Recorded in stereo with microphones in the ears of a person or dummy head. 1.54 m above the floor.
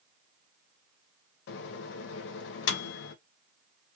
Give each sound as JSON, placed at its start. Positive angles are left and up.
{"t": 1.5, "sound": "a microwave", "side_deg": 60, "distance_m": 0.7}